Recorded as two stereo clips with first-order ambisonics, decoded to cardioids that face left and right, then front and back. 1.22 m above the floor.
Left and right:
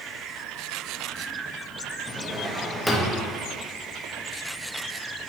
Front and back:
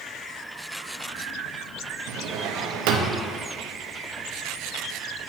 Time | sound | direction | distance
2.1 | a drawer | 175° left | 0.8 m